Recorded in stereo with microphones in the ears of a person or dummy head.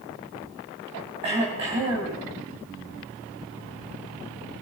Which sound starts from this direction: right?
Throat clearing, at 1.2 s.